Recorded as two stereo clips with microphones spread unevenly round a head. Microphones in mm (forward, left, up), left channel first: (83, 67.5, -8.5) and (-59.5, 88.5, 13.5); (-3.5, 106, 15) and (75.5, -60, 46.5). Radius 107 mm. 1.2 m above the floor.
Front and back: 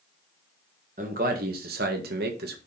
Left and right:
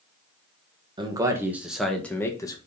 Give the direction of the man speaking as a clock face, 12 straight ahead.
5 o'clock.